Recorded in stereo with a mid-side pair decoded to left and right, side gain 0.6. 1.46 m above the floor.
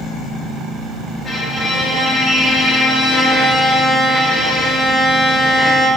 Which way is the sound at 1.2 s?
15° left.